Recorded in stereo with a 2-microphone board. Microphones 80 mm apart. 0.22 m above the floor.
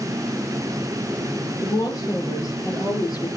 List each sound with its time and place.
1.6 s a woman speaking: 45° left (ahead or behind), 6 m; by 3.3 s 60° left (ahead or behind), 4 m